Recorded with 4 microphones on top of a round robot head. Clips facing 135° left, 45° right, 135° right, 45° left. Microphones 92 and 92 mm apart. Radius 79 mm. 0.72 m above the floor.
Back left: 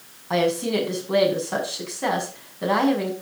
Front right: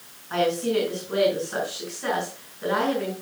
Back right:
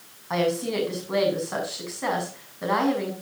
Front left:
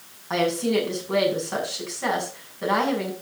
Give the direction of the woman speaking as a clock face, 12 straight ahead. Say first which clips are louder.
Back left 1 dB, front left 2 dB; 7 o'clock.